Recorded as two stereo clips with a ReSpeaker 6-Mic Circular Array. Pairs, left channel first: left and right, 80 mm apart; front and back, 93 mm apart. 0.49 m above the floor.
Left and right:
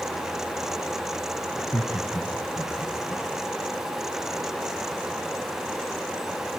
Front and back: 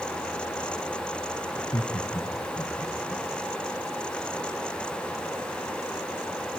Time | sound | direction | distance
1.6 | laughter | 10° left | 3 m